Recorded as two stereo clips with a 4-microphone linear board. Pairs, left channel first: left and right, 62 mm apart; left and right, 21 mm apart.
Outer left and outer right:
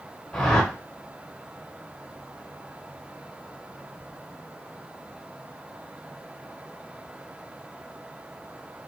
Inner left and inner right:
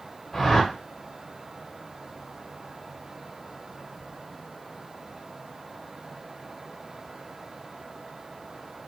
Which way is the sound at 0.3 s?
10° left (ahead or behind).